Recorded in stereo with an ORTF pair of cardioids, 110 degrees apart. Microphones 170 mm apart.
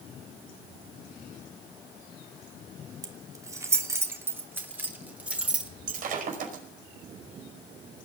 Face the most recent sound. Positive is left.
turn(degrees=-60)